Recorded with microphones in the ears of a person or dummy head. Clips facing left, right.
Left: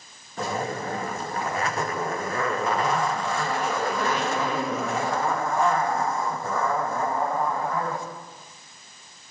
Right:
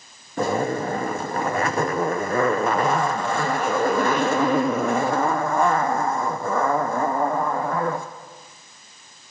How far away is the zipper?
About 0.5 m.